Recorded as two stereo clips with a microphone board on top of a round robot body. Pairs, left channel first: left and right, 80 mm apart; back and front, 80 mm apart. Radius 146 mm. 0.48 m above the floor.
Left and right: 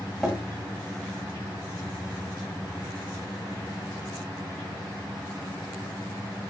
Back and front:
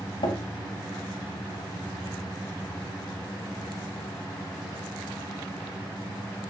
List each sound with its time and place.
0.2 s tapping: 175° left, 3 m